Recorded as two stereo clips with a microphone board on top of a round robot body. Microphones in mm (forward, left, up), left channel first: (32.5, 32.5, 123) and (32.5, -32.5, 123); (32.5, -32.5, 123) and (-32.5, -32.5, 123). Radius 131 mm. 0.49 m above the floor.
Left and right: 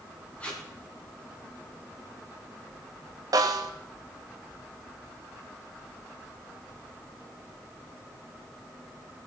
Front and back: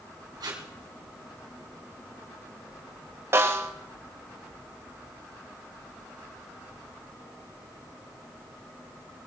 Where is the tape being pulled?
165° left, 2.5 m.